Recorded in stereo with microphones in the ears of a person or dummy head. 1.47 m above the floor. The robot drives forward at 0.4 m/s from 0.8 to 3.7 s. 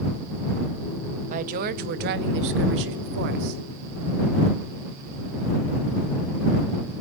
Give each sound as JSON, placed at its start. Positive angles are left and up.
{"t": 1.3, "sound": "a woman speaking", "side_deg": -45, "distance_m": 0.9}